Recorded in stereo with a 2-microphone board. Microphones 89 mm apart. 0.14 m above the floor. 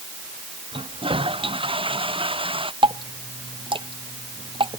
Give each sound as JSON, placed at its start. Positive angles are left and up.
{"t": 0.7, "sound": "a toilet flushing", "side_deg": -85}
{"t": 2.8, "sound": "dripping", "side_deg": -75}